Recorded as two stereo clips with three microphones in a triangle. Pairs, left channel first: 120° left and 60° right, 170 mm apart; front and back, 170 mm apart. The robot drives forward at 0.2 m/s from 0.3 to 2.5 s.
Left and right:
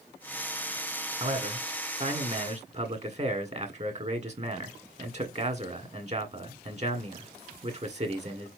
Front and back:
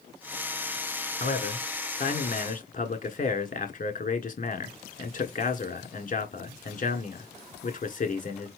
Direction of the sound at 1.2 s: 20° right.